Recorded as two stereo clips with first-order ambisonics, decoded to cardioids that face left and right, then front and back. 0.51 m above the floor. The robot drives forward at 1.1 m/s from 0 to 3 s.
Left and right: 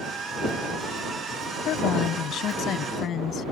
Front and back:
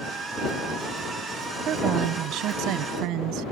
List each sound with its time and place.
1.6 s a woman speaking: 130° left; by 3.5 s 150° left